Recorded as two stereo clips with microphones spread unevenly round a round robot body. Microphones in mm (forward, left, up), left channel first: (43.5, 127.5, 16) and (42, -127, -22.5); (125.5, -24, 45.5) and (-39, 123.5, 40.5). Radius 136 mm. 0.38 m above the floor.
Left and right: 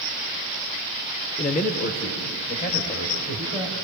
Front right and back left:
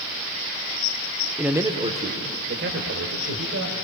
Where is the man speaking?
55° left, 0.9 m; by 3.8 s 155° left, 2.0 m.